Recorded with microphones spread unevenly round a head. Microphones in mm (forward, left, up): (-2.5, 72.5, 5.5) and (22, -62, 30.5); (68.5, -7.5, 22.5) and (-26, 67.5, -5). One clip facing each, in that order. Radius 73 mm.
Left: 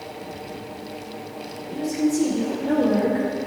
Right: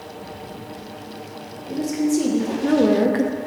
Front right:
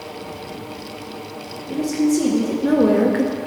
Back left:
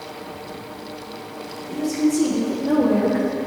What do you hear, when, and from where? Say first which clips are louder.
1.7 s a woman speaking: right 2 dB, front right 2 dB; 65° right, 2 m; by 3.4 s 85° right, 0.5 m